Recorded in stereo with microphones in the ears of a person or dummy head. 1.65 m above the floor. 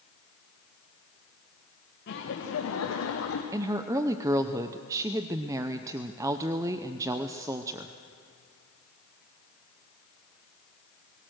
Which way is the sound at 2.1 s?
60° left (ahead or behind).